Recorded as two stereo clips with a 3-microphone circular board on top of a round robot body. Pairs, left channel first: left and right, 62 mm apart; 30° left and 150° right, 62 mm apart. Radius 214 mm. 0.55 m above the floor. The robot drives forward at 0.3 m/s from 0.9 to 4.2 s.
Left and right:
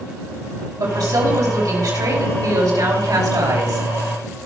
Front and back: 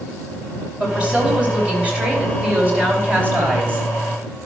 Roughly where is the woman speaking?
Right.